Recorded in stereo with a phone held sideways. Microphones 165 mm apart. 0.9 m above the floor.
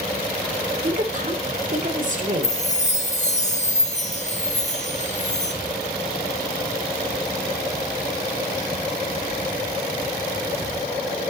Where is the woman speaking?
50° right (ahead or behind), 2.5 m.